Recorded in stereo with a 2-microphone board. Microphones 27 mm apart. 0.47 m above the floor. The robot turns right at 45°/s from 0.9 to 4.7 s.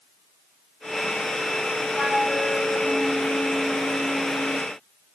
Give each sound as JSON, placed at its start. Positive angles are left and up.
{"t": 2.0, "sound": "a flute", "azimuth_deg": -20, "distance_m": 1.4}